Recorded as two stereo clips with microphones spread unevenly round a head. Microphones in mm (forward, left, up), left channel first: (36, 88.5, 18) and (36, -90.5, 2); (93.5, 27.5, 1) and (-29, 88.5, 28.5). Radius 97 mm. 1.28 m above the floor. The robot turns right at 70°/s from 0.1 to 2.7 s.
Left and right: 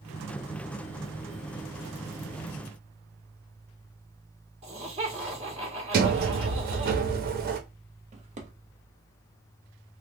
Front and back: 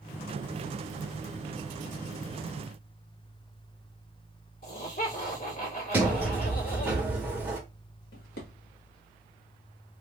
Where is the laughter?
35° right, 1.9 m.